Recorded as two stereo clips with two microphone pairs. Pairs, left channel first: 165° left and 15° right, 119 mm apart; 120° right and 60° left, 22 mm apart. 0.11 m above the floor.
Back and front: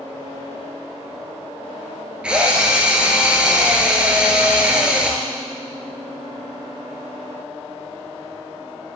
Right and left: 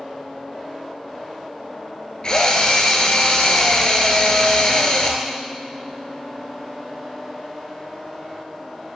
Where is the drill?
95° right, 0.9 m.